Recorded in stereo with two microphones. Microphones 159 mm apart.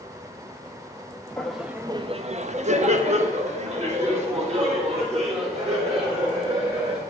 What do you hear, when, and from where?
1.4 s laughter: 5° left (ahead or behind), 0.8 m; by 7.0 s 40° right (ahead or behind), 5.5 m